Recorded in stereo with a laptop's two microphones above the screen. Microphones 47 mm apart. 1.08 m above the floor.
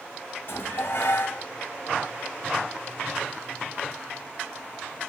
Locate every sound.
0.5 s dishes clattering: 55° left (ahead or behind), 1.9 m